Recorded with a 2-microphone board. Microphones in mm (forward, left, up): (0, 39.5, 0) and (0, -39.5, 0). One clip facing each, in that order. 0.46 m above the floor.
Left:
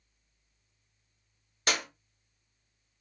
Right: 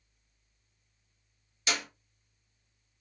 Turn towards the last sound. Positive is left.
turn(degrees=50)  # may be behind; listen again after turning